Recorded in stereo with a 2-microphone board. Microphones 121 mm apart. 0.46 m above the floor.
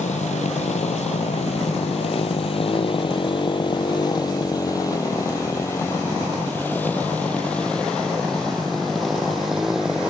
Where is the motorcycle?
65° left (ahead or behind); by 10.1 s 5° right (ahead or behind).